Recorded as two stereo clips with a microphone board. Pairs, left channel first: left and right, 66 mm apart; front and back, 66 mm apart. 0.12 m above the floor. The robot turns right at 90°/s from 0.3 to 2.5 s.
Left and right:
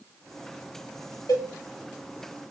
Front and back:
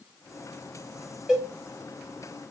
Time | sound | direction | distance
1.3 | a cowbell | 105° left | 1.7 m